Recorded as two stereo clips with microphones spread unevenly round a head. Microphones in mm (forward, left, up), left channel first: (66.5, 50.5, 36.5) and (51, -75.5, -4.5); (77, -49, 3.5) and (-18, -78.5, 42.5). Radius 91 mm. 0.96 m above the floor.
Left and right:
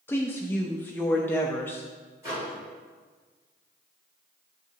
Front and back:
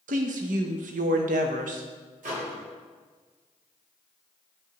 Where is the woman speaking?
170° left, 0.5 m.